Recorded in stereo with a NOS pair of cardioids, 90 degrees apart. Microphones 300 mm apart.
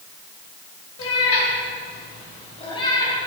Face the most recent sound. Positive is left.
turn(degrees=10)